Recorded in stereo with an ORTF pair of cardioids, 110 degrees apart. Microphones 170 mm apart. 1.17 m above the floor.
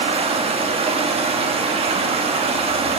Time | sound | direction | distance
0.0 | running water | 35° right | 1.3 m